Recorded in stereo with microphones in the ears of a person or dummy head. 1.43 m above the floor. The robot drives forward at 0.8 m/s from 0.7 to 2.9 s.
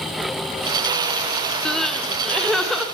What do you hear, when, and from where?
1.6 s crying: 5° left (ahead or behind), 0.6 m